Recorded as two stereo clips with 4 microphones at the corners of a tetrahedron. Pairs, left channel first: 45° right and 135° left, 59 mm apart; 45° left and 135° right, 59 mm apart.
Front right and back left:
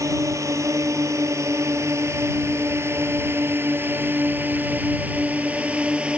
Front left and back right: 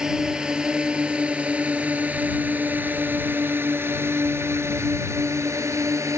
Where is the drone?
145° left; by 6.2 s 155° right.